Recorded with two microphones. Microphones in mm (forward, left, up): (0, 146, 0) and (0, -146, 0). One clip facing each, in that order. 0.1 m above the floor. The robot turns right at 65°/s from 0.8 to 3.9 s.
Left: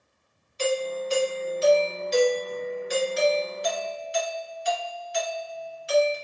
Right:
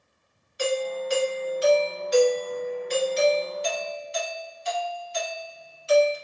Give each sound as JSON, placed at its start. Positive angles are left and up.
{"t": 0.6, "sound": "a doorbell", "side_deg": -15, "distance_m": 1.5}